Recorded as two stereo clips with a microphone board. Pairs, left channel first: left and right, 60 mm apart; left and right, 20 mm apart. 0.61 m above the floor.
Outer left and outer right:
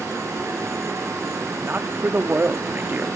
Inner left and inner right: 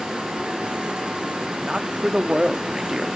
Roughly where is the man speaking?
Right.